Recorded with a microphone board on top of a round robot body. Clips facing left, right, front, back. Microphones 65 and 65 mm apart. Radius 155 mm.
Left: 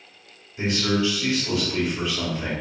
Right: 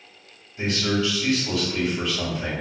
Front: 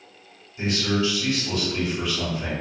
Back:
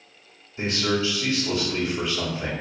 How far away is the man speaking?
About 1.5 m.